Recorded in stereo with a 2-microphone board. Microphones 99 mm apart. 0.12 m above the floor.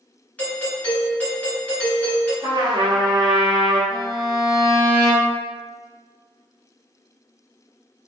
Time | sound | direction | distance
0.4 | a doorbell | 15° left (ahead or behind) | 1.9 m
2.4 | a trumpet | 45° right (ahead or behind) | 1.5 m
3.9 | a violin | 40° right (ahead or behind) | 1.7 m